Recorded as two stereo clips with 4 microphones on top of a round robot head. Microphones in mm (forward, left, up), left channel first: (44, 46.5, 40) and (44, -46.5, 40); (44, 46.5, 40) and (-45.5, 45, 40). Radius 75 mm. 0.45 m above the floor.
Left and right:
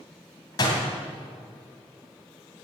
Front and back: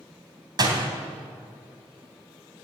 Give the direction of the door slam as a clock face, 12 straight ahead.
7 o'clock.